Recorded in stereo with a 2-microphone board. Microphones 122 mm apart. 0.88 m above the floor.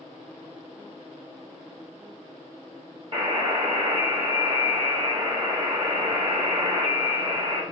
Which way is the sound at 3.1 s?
45° right (ahead or behind).